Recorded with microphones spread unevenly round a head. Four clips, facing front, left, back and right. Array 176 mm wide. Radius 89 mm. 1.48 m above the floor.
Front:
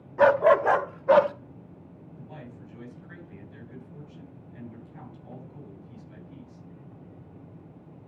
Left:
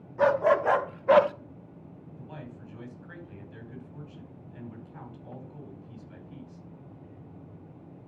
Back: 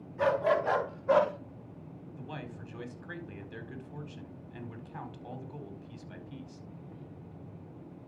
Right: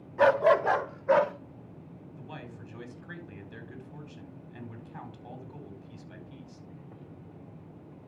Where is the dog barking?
20° right, 1.1 m; by 1.3 s 70° left, 1.0 m.